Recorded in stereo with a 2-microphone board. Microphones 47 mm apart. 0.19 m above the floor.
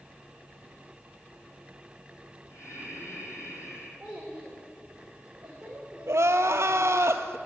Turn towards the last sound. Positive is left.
turn(degrees=-75)  # may be behind; listen again after turning